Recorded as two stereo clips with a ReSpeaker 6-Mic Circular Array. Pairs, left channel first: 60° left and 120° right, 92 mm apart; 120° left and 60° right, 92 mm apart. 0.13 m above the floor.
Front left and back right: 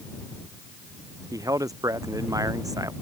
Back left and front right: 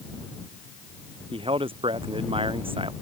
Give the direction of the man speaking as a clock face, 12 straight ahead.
2 o'clock.